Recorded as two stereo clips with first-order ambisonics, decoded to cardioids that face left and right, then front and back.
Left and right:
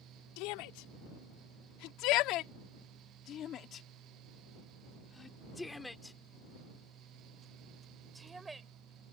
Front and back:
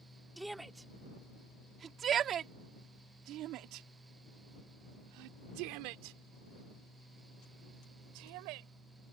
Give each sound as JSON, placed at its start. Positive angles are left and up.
{"t": 0.4, "sound": "a shout", "azimuth_deg": 95}